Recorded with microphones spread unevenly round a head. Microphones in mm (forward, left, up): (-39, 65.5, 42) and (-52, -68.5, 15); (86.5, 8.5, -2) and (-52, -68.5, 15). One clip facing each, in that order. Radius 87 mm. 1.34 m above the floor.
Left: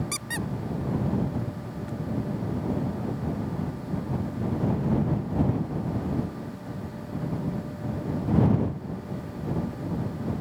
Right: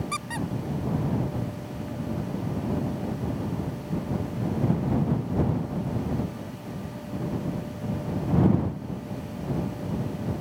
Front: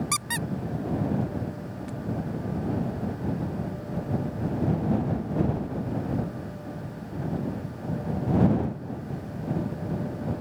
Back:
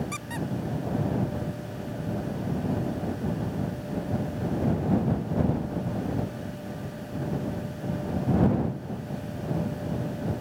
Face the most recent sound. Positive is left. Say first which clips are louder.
# right 2 dB, even
turn(degrees=35)